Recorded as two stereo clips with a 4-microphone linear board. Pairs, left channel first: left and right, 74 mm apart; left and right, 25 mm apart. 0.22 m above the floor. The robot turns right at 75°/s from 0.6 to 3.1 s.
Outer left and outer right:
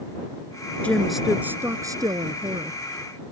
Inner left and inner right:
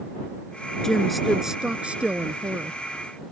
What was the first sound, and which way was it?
A woman speaking, 160° left.